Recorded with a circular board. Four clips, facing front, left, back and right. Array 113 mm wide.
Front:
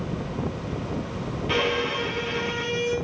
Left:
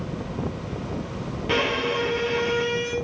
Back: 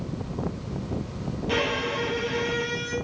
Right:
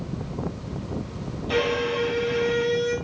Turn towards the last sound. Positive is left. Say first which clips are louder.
# right 1 dB, front 2 dB
turn(degrees=75)